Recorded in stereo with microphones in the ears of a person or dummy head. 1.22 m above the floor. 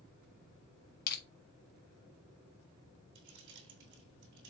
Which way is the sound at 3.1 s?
65° right (ahead or behind).